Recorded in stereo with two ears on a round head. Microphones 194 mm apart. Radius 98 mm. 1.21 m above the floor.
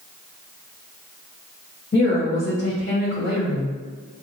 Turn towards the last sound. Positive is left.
turn(degrees=45)  # may be behind; listen again after turning